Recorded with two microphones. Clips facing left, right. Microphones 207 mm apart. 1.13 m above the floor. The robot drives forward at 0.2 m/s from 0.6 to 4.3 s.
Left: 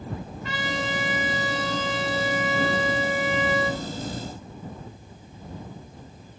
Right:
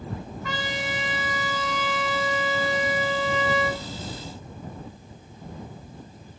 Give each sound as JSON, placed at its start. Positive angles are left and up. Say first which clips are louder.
{"t": 0.4, "sound": "a trumpet", "louder": "left 2 dB", "side_deg": 30, "distance_m": 5.5}